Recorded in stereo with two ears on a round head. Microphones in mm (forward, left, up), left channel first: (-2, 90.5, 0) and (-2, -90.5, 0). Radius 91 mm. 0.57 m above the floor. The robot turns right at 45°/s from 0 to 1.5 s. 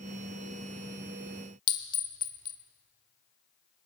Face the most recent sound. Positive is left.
turn(degrees=25)  # may be behind; listen again after turning